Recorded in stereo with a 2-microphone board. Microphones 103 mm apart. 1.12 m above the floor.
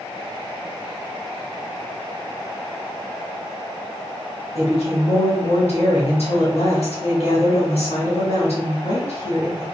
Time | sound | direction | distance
4.5 | a woman speaking | 85° left | 1.4 m